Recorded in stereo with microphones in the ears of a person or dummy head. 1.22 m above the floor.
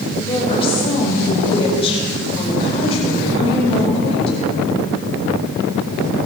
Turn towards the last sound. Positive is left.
turn(degrees=35)  # may be behind; listen again after turning